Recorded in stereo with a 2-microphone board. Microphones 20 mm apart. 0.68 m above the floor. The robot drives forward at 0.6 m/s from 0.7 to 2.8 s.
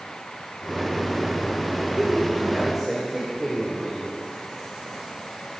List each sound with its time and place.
2.0 s a man speaking: 15° right (ahead or behind), 2 m